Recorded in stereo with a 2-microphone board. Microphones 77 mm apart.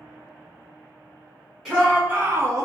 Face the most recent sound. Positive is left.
turn(degrees=-40)  # may be behind; listen again after turning